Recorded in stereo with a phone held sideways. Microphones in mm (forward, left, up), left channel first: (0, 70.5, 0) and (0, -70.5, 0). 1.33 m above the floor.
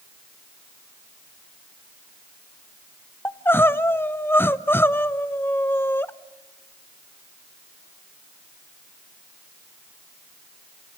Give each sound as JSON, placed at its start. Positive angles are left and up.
{"t": 3.2, "sound": "crying", "side_deg": 15, "distance_m": 0.8}